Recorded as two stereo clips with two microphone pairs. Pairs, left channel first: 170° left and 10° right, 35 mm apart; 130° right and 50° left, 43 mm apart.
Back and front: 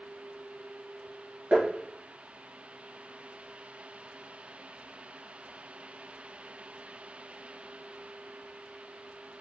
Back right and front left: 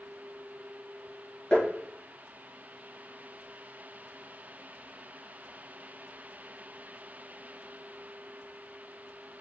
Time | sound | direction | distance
1.5 | tapping | 55° right | 1.6 m